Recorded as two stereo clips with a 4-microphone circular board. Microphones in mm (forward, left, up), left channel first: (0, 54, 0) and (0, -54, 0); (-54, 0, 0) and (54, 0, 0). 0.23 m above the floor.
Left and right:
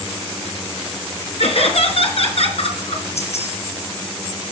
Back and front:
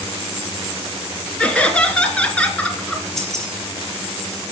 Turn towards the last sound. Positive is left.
turn(degrees=95)